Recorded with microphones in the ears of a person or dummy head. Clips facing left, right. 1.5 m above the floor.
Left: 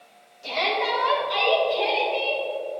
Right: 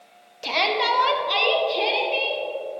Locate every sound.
0.4 s a shout: 75° right (ahead or behind), 1.3 m; by 2.4 s 40° right (ahead or behind), 2.5 m